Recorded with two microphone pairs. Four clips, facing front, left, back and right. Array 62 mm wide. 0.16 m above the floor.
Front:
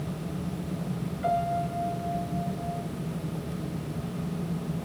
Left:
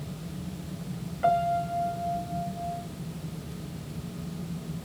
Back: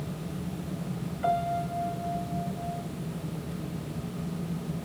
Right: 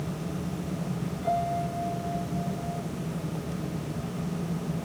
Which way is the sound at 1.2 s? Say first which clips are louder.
Left 4 dB, even; 90° left.